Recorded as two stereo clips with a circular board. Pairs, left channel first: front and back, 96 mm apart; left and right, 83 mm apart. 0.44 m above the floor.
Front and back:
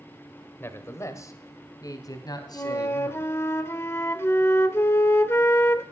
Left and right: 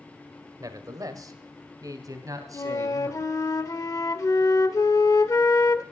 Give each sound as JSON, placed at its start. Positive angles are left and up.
{"t": 0.6, "sound": "a man speaking", "azimuth_deg": -60, "distance_m": 1.6}
{"t": 2.5, "sound": "a flute", "azimuth_deg": 55, "distance_m": 0.9}